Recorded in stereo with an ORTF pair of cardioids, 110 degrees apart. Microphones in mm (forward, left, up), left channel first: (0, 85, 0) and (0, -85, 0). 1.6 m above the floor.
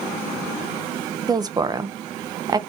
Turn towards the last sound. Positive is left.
turn(degrees=-25)